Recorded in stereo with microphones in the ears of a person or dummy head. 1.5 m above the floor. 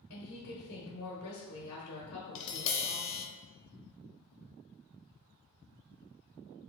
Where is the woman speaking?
85° left, 1.0 m.